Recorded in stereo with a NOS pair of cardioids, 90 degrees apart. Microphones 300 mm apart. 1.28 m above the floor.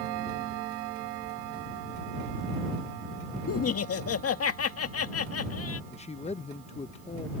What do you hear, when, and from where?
3.5 s laughter: 50° left
5.9 s a man speaking: 20° left